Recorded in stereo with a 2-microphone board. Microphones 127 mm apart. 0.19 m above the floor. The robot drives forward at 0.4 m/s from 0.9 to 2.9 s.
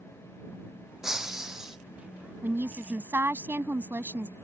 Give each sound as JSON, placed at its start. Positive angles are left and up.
{"t": 1.0, "sound": "breaking glass", "side_deg": -5}
{"t": 2.4, "sound": "a woman speaking", "side_deg": -15}